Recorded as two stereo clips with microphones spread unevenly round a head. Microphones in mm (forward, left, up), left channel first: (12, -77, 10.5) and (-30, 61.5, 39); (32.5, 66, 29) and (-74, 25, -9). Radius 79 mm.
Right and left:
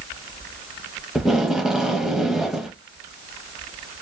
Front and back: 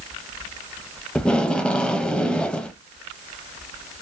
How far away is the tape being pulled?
About 0.9 m.